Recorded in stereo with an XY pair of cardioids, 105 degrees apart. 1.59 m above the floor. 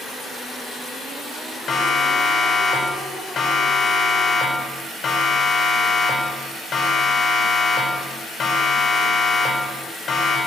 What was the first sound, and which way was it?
A siren, 45° left.